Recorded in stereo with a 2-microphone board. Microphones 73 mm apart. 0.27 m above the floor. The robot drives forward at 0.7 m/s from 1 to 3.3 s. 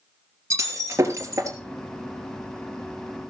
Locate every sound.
0.5 s breaking glass: 40° right (ahead or behind), 3.5 m; by 1.6 s 45° right (ahead or behind), 3.5 m